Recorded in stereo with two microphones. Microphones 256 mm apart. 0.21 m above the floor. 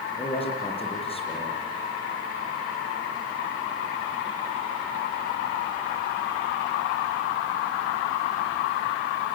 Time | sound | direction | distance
0.2 | a man speaking | 20° left (ahead or behind) | 6.5 m